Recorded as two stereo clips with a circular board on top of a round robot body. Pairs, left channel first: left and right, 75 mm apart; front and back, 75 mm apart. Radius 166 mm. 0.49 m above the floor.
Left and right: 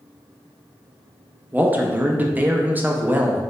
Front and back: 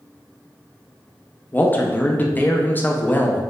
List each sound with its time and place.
1.5 s a man speaking: 45° right, 0.8 m